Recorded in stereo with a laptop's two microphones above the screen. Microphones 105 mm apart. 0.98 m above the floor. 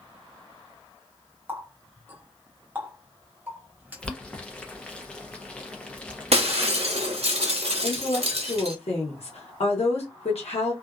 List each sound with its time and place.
1.5 s a running tap: 15° right (ahead or behind), 0.8 m
4.0 s boiling: 10° left (ahead or behind), 0.6 m
6.3 s breaking glass: 70° right (ahead or behind), 0.8 m
7.8 s a woman speaking: 70° left (ahead or behind), 1.1 m